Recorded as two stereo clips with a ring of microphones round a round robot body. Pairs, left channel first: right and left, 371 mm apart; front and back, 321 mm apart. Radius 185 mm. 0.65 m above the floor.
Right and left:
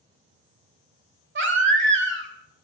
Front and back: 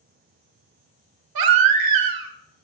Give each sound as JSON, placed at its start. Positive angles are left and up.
{"t": 1.4, "sound": "a baby crying", "azimuth_deg": 155, "distance_m": 1.0}